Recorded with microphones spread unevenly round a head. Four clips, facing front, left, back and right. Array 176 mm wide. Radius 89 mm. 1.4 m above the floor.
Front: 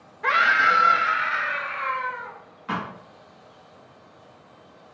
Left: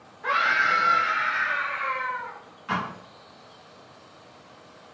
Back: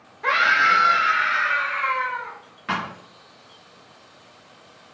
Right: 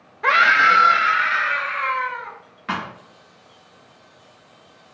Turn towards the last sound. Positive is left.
turn(degrees=-130)